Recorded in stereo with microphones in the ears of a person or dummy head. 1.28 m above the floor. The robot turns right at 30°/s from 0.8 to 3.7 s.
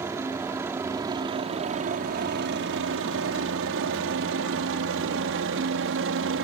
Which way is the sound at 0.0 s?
10° right (ahead or behind).